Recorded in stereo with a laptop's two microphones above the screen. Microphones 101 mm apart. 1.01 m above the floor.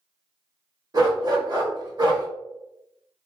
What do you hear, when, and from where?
0.9 s a dog barking: 40° right (ahead or behind), 0.9 m